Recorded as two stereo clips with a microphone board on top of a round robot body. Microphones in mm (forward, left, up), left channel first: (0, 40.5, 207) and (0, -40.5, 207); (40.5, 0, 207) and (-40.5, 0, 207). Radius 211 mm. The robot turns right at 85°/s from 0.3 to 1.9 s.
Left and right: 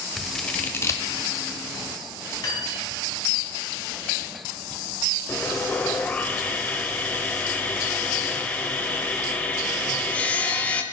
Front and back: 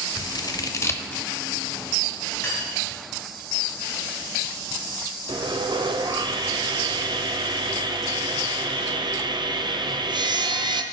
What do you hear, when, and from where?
0.2 s scissors: straight ahead, 1.0 m; by 1.3 s 85° left, 1.0 m
2.4 s cutlery clinking: 50° left, 5 m
5.3 s sawing: 160° left, 0.9 m